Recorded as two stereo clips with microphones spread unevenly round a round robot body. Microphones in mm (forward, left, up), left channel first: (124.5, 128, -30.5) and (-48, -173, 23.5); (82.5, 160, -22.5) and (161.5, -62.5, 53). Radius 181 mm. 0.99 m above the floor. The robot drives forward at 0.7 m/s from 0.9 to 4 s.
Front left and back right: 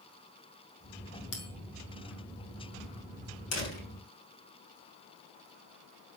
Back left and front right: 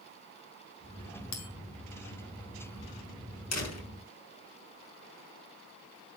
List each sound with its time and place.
1.3 s a bell: 115° left, 3.5 m
3.5 s a door slam: 100° left, 6.5 m